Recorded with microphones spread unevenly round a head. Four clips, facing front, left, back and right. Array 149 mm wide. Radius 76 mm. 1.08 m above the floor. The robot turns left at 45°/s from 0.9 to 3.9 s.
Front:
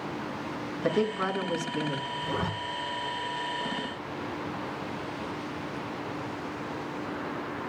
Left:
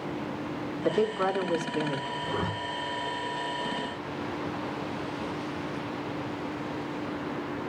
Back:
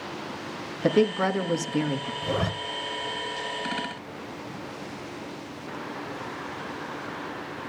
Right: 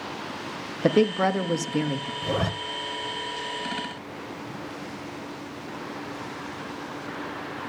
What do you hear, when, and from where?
0.8 s a woman speaking: 100° right, 1.9 m; by 2.1 s 155° right, 1.9 m
2.2 s a zipper: 105° right, 1.8 m; by 2.5 s 115° right, 1.8 m